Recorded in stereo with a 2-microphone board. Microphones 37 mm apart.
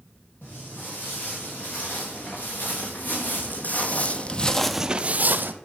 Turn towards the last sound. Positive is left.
turn(degrees=-65)  # may be behind; listen again after turning